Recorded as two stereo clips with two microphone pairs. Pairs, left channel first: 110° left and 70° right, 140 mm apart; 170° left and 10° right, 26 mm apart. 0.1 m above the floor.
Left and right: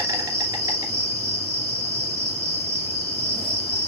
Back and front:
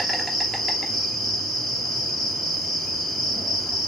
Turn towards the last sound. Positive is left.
turn(degrees=-120)